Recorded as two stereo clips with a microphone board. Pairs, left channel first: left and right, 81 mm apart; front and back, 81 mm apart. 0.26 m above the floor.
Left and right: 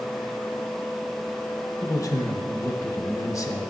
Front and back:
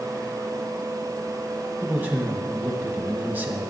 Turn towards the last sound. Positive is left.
turn(degrees=120)